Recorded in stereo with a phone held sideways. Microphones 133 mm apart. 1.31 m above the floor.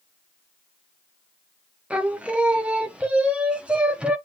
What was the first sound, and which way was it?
Singing, 10° right (ahead or behind).